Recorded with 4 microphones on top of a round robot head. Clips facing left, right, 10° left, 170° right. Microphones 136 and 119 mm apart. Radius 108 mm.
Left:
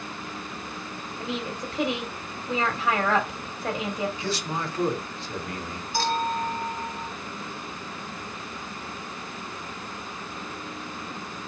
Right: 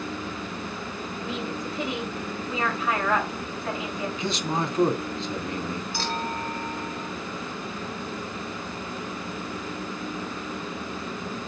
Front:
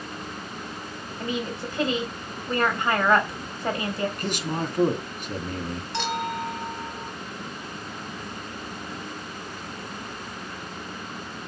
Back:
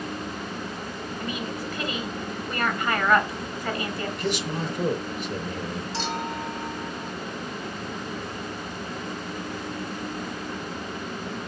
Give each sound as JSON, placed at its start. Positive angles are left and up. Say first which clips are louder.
{"t": 1.2, "sound": "a woman speaking", "louder": "left 1 dB, front 4 dB", "azimuth_deg": 75, "distance_m": 3.5}
{"t": 4.2, "sound": "a man speaking", "louder": "right 3 dB, back 1 dB", "azimuth_deg": -25, "distance_m": 2.0}
{"t": 5.9, "sound": "a clink", "louder": "left 8 dB, front 4 dB", "azimuth_deg": 45, "distance_m": 3.5}